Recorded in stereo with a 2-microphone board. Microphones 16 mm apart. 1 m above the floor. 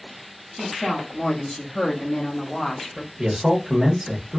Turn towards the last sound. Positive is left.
turn(degrees=-50)  # may be behind; listen again after turning